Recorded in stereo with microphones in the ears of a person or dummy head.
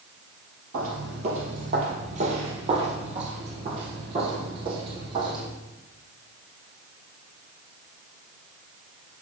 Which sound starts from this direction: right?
Footsteps, at 0.7 s.